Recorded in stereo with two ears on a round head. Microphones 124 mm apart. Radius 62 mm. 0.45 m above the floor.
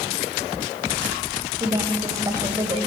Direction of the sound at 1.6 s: 25° right (ahead or behind).